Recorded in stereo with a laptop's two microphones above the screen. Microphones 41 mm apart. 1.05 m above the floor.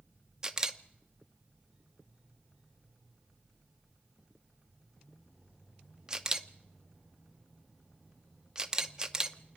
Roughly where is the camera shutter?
Centre.